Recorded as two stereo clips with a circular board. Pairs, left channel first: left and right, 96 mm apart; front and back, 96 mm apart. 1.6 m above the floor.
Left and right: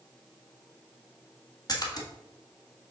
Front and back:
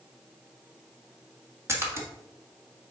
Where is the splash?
125° left, 1.4 m.